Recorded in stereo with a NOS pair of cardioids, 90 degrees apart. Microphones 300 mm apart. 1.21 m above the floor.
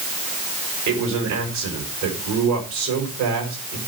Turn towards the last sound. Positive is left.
turn(degrees=-70)